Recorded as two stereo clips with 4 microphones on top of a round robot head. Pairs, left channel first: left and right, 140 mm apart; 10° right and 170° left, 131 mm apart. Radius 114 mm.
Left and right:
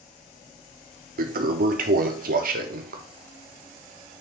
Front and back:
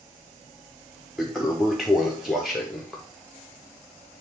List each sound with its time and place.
1.2 s a toilet flushing: 100° right, 0.7 m